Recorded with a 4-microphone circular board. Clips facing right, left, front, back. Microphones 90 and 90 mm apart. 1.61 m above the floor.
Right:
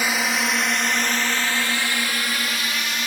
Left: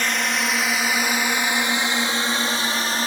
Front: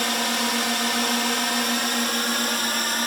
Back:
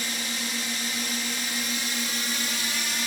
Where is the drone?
10° right; by 3.1 s 35° left.